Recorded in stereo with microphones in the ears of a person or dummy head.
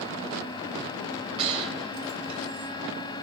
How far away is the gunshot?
About 0.9 m.